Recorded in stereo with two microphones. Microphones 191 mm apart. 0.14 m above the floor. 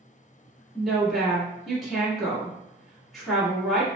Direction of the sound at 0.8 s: Centre (ahead or behind).